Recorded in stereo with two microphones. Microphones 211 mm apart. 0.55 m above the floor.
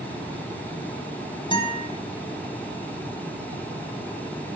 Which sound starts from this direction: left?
A guitar, at 1.5 s.